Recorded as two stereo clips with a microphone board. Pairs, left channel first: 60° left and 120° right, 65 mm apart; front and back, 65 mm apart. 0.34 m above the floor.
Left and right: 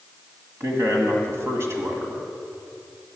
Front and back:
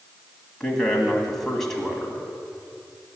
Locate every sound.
0.6 s a man speaking: 85° right, 1.8 m